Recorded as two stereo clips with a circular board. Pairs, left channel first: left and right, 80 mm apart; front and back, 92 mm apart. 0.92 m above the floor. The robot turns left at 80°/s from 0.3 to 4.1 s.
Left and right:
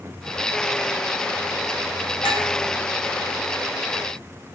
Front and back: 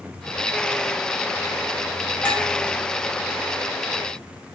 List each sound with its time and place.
2.2 s a clink: 80° left, 1.2 m; by 2.4 s 65° left, 1.2 m